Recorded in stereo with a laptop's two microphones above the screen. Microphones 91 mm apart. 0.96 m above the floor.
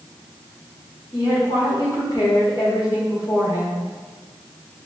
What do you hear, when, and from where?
1.1 s a woman speaking: 55° left (ahead or behind), 1.2 m